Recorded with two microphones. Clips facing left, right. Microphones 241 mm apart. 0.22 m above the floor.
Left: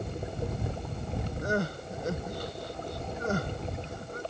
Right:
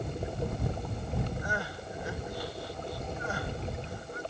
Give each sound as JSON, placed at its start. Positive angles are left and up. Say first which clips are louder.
{"t": 1.4, "sound": "crying", "louder": "left 7 dB", "side_deg": 45}